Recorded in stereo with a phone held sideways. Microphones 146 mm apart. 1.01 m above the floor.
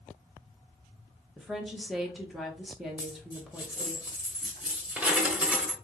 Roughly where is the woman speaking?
Centre.